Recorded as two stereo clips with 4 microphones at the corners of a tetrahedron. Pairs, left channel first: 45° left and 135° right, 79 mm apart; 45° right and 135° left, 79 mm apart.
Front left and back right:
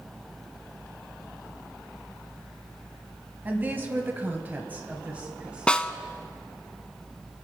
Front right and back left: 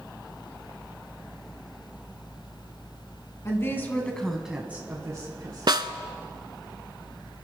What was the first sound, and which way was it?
A woman speaking, 80° right.